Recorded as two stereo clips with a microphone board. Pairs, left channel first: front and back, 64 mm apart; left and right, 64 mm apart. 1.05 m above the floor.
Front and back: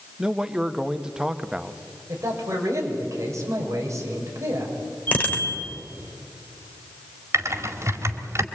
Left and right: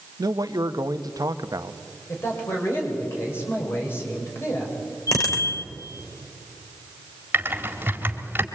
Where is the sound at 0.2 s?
100° right, 1.0 m.